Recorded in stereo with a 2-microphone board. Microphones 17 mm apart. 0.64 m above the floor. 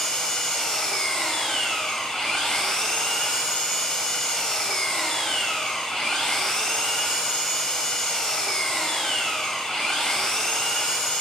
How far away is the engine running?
About 3 m.